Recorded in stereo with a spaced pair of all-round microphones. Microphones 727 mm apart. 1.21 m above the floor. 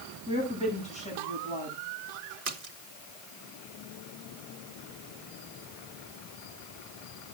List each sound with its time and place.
0.3 s a woman speaking: 10° left (ahead or behind), 8.5 m
2.5 s a splash: 50° right (ahead or behind), 1.4 m